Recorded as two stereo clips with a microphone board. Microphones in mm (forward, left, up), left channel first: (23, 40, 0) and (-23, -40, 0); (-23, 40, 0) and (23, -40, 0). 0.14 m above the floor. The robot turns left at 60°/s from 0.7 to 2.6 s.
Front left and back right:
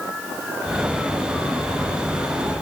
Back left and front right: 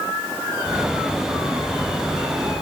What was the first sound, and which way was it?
Only background noise.